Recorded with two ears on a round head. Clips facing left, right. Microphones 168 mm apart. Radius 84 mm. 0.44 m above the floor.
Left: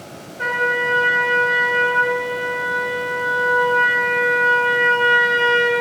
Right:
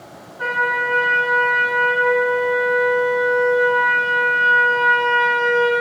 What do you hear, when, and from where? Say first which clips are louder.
0.4 s a trumpet: left 1 dB; 30° left (ahead or behind), 4.5 m